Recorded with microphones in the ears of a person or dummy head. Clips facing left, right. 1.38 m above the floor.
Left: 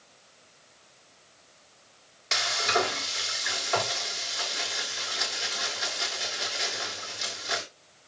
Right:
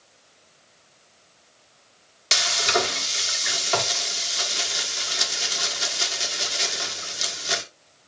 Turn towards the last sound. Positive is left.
turn(degrees=-45)  # may be behind; listen again after turning